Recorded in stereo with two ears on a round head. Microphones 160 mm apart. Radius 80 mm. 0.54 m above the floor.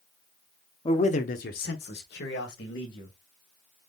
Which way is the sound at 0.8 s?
30° left (ahead or behind).